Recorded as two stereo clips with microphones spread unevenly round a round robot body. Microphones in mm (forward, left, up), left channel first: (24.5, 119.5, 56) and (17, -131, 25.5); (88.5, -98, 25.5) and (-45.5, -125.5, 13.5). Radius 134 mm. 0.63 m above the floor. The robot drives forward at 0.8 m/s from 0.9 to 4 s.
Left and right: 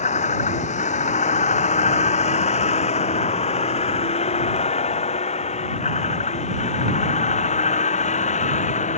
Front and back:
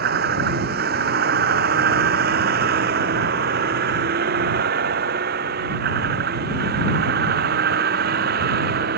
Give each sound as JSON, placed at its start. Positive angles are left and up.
{"t": 0.0, "sound": "a vehicle", "azimuth_deg": 155}